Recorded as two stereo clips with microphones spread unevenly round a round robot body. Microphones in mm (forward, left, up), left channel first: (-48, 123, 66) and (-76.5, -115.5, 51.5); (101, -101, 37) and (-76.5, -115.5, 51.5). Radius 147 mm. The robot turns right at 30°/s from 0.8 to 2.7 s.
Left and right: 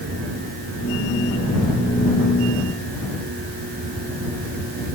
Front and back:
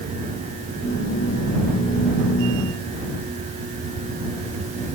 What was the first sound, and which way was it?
Only background noise.